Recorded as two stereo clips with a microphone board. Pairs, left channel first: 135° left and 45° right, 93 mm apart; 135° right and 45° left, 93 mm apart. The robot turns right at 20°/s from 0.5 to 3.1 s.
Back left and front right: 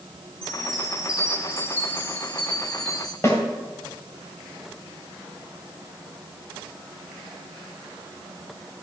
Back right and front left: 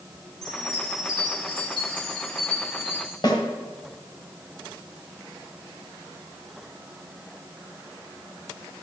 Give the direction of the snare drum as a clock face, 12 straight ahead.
6 o'clock.